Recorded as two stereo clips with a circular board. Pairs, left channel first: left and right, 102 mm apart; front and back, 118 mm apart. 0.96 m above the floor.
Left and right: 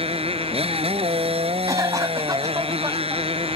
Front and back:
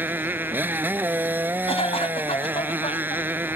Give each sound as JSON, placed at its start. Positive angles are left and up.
{"t": 0.0, "sound": "a motorcycle", "azimuth_deg": -105}
{"t": 1.7, "sound": "a cough", "azimuth_deg": -35}